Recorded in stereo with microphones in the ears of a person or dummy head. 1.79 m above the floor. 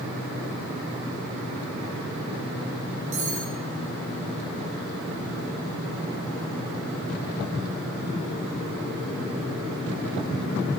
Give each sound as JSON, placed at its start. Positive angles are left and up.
{"t": 3.1, "sound": "cutlery clinking", "side_deg": -35, "distance_m": 2.5}